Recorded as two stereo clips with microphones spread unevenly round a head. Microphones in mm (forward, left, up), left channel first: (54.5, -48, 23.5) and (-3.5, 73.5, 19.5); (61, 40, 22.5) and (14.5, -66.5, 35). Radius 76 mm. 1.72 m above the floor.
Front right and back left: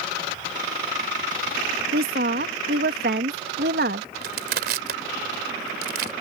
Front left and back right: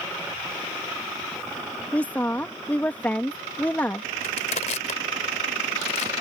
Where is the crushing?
115° left.